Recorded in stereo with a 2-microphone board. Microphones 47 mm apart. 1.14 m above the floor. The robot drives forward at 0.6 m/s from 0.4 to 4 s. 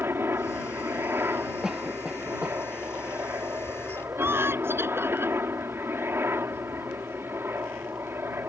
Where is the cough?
10° right (ahead or behind); by 2.6 s 15° right (ahead or behind).